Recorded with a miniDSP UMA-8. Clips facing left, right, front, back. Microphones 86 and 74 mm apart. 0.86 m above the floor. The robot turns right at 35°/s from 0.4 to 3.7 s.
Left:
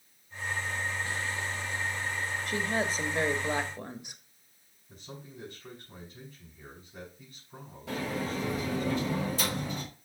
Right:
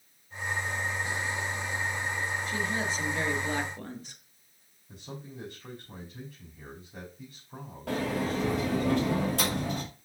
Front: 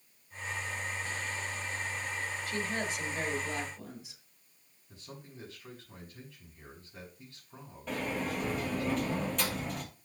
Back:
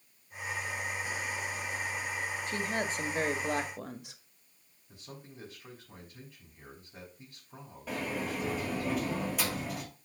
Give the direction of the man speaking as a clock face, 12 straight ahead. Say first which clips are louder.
Right 3 dB, even; 4 o'clock.